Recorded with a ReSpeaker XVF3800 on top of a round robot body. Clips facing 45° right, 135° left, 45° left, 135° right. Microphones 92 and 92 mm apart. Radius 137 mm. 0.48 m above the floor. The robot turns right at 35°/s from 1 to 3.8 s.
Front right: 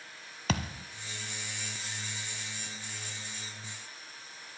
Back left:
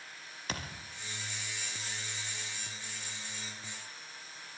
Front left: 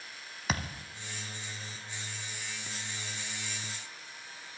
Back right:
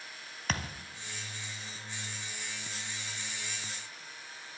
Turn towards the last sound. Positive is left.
turn(degrees=60)